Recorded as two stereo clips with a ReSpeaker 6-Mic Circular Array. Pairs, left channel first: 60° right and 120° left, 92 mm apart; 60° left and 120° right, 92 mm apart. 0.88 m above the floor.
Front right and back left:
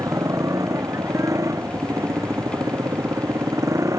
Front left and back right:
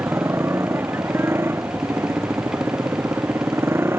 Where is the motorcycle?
175° left.